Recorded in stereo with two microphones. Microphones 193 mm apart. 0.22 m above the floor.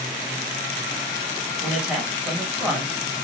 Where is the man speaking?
5° right (ahead or behind), 1.3 m.